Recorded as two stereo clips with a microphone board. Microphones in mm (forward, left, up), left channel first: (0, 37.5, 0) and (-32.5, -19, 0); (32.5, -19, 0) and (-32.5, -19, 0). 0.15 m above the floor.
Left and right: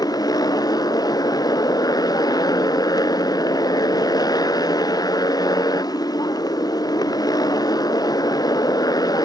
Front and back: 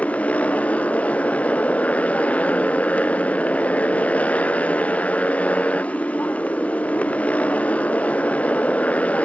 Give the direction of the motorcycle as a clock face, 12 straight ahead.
10 o'clock.